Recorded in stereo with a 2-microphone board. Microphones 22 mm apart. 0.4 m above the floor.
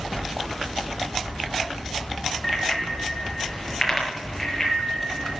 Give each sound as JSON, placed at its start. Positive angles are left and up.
{"t": 2.4, "sound": "a bicycle bell", "side_deg": 10, "distance_m": 3.5}